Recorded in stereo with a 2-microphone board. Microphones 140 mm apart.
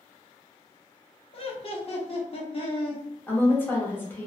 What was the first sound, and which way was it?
Laughter, 45° left (ahead or behind).